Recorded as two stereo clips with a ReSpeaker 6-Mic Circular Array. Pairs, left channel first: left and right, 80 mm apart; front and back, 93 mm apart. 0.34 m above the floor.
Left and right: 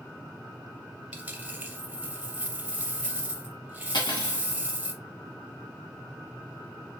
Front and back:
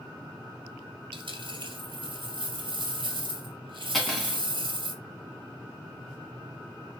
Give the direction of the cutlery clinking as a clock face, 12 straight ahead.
9 o'clock.